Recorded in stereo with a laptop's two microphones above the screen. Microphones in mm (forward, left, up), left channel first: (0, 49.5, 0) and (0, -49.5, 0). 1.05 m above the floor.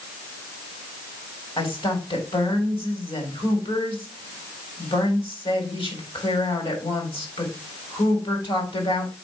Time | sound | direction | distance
1.6 | a woman speaking | 65° left (ahead or behind) | 3.5 m